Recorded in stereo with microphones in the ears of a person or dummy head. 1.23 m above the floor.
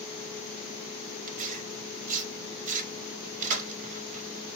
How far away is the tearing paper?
About 0.9 m.